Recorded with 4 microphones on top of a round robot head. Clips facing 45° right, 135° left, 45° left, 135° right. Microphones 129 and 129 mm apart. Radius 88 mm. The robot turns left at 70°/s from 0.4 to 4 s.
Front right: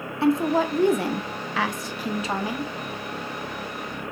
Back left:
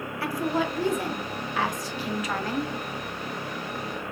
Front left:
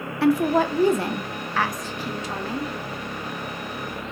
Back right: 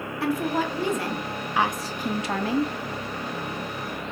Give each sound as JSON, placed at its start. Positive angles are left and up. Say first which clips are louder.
{"t": 0.2, "sound": "a woman speaking", "louder": "front right 7 dB, front left 6 dB", "azimuth_deg": 20, "distance_m": 0.6}